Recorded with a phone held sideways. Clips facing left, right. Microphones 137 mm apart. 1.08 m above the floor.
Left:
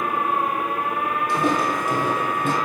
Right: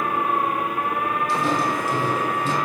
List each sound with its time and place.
1.3 s footsteps: 60° left (ahead or behind), 2.5 m